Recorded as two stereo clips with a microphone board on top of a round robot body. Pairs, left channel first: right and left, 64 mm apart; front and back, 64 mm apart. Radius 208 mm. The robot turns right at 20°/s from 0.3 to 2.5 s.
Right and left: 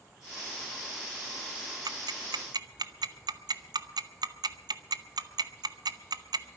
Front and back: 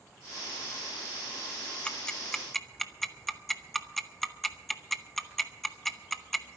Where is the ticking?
75° left, 0.9 m; by 6.5 s 90° left, 0.9 m.